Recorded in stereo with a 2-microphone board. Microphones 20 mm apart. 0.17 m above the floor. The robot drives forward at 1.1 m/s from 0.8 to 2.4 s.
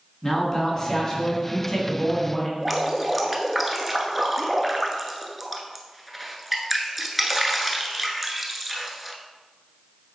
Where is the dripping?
Centre (ahead or behind), 0.8 m.